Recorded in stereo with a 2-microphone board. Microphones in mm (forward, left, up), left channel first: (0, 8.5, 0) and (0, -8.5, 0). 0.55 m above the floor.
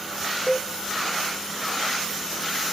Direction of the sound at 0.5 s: 85° left.